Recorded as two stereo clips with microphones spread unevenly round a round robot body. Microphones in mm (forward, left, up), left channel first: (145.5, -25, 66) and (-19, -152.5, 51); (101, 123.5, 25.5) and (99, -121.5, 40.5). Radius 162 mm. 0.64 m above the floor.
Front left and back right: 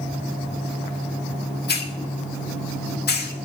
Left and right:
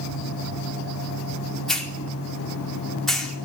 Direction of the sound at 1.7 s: 5° left.